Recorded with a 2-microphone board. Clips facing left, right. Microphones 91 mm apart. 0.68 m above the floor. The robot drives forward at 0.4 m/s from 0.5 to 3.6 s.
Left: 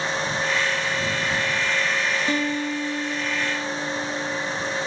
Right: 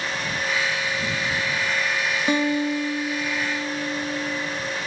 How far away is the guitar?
About 1.2 m.